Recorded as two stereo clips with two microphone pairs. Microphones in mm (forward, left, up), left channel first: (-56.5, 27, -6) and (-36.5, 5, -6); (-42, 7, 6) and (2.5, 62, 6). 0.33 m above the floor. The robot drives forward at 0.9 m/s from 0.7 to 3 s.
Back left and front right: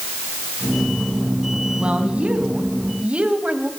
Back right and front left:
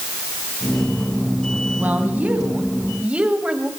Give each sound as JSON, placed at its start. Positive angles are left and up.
{"t": 1.8, "sound": "a woman speaking", "azimuth_deg": -10, "distance_m": 3.0}